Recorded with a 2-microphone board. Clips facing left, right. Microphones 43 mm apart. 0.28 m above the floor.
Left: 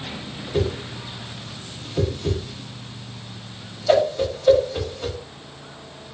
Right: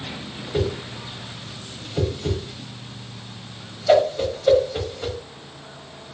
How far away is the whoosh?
About 0.9 m.